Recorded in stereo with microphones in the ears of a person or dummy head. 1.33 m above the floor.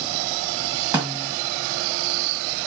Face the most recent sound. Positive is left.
turn(degrees=-15)  # may be behind; listen again after turning